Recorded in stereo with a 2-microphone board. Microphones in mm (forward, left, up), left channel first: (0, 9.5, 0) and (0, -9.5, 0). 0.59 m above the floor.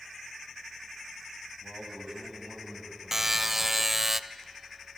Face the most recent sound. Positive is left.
turn(degrees=-15)  # may be behind; listen again after turning